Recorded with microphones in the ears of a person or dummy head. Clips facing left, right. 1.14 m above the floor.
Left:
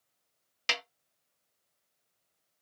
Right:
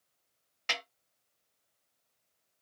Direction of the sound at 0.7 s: 50° left (ahead or behind).